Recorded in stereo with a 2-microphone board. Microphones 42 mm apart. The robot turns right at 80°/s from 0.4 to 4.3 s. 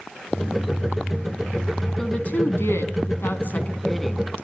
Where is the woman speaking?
15° left, 4 m; by 4.3 s 160° right, 4 m.